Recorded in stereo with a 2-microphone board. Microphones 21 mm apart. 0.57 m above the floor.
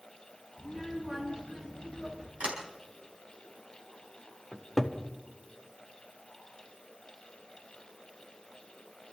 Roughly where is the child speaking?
Right.